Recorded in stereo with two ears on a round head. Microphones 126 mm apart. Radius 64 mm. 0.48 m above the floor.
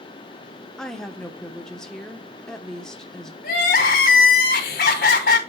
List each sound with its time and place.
0.8 s a woman speaking: 5° left (ahead or behind), 1.0 m
3.4 s crying: 75° left (ahead or behind), 2 m